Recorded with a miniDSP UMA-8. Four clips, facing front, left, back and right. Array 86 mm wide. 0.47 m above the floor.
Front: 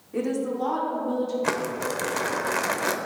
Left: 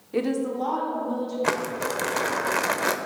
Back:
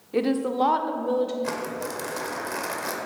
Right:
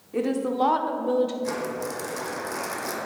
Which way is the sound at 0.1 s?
140° left.